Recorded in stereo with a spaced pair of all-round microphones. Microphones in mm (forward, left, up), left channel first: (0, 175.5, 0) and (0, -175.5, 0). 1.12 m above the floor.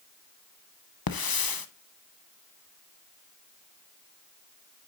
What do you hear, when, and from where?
1.1 s a hiss: 75° left (ahead or behind), 0.6 m